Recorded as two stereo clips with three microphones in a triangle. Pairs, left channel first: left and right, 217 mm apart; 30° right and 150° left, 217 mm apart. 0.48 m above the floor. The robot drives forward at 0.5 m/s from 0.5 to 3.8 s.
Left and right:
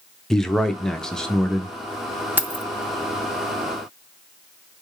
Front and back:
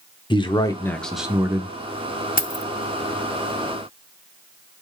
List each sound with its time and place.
0.3 s a man speaking: 5° left, 0.7 m; by 1.7 s 175° left, 0.7 m
2.4 s keys jangling: 10° right, 0.6 m; by 2.6 s 15° right, 0.5 m